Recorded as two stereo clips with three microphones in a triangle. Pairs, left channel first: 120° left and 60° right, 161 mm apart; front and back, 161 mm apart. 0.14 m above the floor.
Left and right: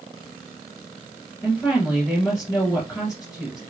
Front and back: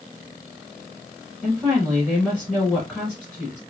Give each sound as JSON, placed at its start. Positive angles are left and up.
{"t": 1.4, "sound": "a woman speaking", "azimuth_deg": 75, "distance_m": 1.2}